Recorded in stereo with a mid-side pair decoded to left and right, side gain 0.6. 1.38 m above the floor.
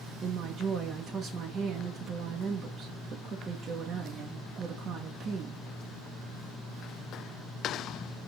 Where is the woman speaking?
45° right, 1.5 m.